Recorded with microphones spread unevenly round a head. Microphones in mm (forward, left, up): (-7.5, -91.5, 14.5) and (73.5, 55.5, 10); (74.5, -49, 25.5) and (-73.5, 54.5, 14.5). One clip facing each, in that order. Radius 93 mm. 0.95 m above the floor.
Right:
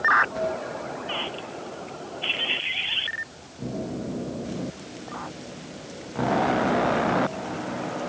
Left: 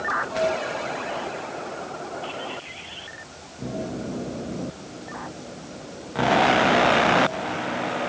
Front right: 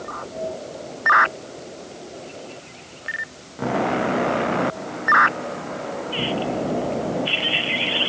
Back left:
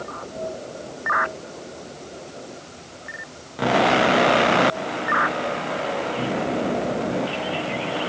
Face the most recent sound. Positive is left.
No sound to turn to.